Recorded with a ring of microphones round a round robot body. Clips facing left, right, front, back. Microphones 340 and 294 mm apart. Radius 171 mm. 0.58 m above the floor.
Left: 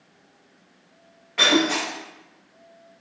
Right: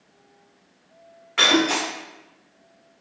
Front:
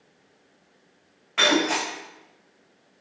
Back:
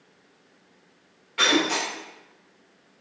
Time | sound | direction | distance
1.4 | breaking glass | 35° right | 1.9 m